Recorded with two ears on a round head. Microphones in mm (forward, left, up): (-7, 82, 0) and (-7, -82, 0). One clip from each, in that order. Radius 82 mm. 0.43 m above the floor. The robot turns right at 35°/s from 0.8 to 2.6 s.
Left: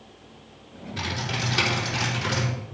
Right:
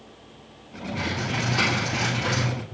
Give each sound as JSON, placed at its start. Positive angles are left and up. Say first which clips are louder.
{"t": 1.0, "sound": "typing on a keyboard", "louder": "right 1 dB", "azimuth_deg": 110, "distance_m": 4.5}